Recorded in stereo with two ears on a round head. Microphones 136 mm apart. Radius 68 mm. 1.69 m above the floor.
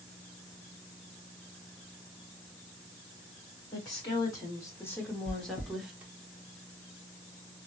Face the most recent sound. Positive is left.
turn(degrees=55)  # may be behind; listen again after turning